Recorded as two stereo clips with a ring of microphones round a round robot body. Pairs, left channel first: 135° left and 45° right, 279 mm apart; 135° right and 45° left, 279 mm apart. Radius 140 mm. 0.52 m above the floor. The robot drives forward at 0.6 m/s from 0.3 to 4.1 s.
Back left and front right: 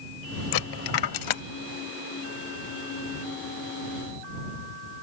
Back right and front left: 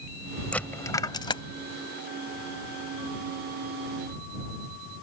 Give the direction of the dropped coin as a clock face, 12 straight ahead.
7 o'clock.